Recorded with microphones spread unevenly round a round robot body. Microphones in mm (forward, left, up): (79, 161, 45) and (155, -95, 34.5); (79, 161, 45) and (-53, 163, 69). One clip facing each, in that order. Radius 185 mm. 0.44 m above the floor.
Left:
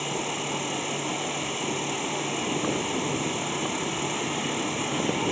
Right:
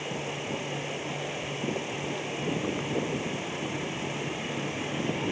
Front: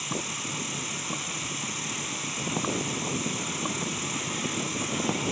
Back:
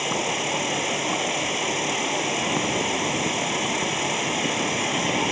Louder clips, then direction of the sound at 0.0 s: Left 3 dB, back 9 dB; 165° left.